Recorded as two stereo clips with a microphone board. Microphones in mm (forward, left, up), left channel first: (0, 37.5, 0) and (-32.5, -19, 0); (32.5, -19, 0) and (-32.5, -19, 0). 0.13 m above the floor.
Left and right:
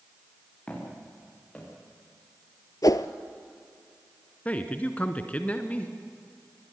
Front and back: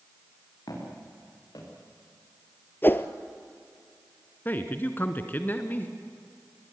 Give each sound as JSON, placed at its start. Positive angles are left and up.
{"t": 0.7, "sound": "footsteps", "azimuth_deg": -10, "distance_m": 7.5}
{"t": 2.8, "sound": "a whoosh", "azimuth_deg": 50, "distance_m": 0.8}
{"t": 4.5, "sound": "a man speaking", "azimuth_deg": 15, "distance_m": 1.4}